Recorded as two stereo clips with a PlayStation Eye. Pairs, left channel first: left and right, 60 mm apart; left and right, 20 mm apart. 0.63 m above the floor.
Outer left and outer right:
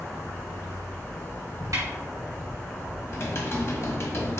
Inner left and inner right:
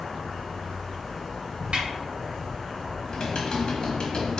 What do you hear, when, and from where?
0.0 s an insect: 50° left (ahead or behind), 1.4 m
1.7 s a snare drum: 70° right (ahead or behind), 2 m
3.1 s typing on a keyboard: 50° left (ahead or behind), 1.1 m